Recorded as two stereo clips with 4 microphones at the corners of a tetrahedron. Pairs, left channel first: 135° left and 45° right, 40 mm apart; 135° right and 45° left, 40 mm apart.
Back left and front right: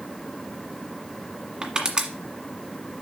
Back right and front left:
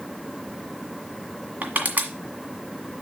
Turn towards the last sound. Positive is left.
turn(degrees=15)